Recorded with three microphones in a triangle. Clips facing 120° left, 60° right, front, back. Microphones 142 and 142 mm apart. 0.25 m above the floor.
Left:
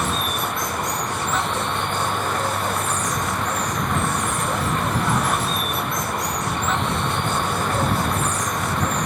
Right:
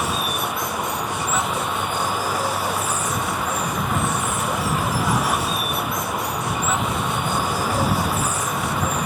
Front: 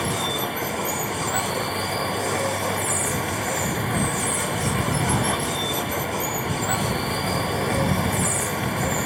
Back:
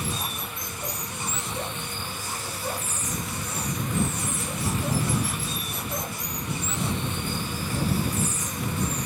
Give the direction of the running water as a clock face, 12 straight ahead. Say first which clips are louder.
Even, front 8 dB; 11 o'clock.